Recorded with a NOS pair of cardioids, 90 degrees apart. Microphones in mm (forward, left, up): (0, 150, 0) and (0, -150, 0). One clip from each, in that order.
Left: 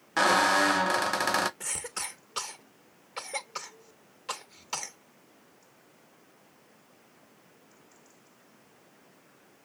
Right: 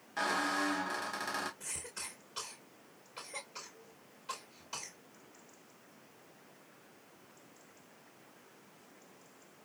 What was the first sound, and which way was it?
A squeak, 65° left.